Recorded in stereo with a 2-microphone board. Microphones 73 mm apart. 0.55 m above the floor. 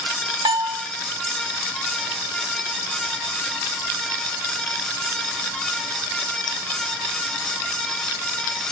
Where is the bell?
70° right (ahead or behind), 0.9 m.